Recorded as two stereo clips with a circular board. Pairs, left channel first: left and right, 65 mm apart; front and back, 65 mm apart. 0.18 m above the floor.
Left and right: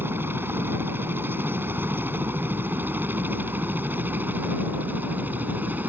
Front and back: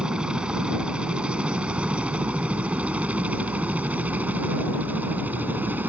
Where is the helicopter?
110° right; by 5.9 s 135° right.